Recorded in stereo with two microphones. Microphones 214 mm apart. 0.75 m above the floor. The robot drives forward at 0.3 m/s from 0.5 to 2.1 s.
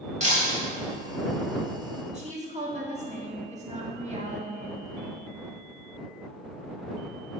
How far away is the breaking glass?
About 2 m.